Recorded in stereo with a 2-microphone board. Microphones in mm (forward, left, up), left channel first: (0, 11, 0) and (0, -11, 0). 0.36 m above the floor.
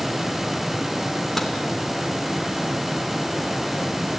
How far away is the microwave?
About 3 m.